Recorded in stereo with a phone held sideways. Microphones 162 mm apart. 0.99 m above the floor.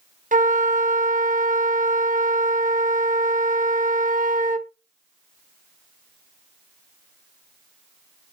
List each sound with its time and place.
0.3 s a flute: 50° right (ahead or behind), 0.9 m